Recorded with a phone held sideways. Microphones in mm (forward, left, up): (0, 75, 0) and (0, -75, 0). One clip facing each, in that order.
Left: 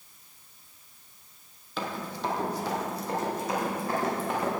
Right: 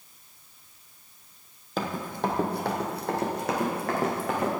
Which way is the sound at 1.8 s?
45° right (ahead or behind).